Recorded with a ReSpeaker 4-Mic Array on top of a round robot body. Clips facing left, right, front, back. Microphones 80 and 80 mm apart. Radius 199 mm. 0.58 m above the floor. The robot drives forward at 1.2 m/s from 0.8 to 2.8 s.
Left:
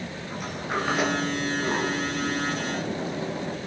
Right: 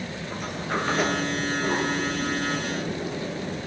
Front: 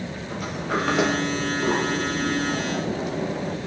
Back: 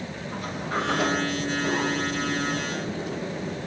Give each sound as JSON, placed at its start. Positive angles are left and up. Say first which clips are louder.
{"t": 0.3, "sound": "a sliding door", "louder": "even, front 3 dB", "azimuth_deg": 10, "distance_m": 3.0}